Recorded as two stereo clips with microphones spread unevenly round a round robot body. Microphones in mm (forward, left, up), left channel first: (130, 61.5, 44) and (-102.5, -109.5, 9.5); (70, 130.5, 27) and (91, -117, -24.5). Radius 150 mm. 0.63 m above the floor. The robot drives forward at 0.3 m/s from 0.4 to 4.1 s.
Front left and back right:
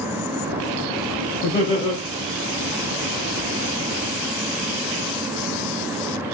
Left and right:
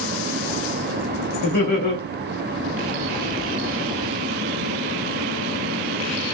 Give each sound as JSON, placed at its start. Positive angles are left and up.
{"t": 1.4, "sound": "laughter", "azimuth_deg": 100, "distance_m": 2.0}